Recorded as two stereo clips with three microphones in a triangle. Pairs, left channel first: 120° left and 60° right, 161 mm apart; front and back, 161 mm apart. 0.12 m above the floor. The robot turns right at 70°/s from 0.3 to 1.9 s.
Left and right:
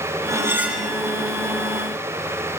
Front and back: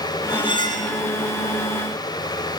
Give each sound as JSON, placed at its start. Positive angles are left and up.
{"t": 0.3, "sound": "cutlery clinking", "azimuth_deg": -15, "distance_m": 0.9}